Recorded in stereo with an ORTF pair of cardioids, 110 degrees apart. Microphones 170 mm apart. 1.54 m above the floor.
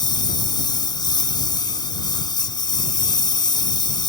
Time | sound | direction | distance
0.0 | a lawn mower | 25° left | ?